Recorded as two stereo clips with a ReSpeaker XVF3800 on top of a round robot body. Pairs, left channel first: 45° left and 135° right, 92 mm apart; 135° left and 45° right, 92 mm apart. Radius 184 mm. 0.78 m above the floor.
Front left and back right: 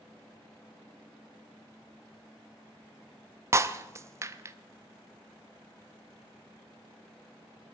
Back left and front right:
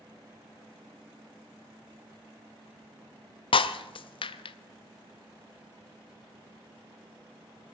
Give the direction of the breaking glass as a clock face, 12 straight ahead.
7 o'clock.